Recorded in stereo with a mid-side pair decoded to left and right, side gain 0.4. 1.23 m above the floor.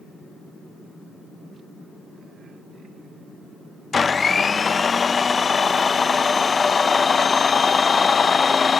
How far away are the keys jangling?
No keys jangling in this recording.